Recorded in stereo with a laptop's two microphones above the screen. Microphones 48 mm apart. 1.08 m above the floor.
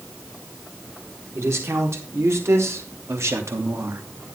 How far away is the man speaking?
About 4 m.